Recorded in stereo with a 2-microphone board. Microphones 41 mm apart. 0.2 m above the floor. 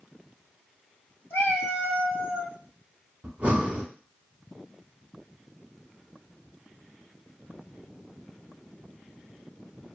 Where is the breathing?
35° right (ahead or behind), 1.0 m.